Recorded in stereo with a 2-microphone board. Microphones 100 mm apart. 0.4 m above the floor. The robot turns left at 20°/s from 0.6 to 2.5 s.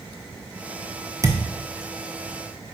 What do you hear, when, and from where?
1.2 s a thud: 35° right (ahead or behind), 0.7 m; by 1.4 s 30° right (ahead or behind), 0.7 m